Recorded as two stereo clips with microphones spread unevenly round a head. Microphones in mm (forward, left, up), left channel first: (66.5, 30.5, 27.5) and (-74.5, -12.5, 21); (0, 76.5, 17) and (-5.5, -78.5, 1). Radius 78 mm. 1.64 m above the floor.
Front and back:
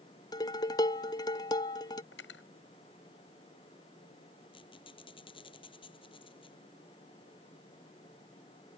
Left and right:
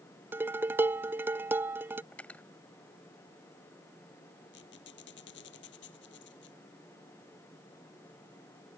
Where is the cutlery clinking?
5° left.